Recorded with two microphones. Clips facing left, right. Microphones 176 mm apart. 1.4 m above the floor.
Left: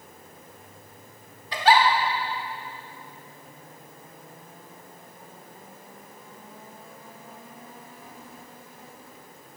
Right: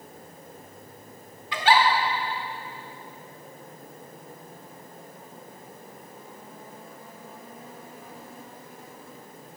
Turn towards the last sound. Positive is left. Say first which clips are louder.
# left 2 dB
turn(degrees=40)  # may be behind; listen again after turning